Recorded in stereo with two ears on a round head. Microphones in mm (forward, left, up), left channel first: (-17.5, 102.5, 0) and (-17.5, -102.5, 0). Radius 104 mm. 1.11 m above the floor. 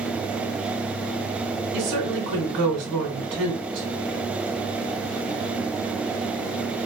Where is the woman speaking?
65° right (ahead or behind), 1.8 m.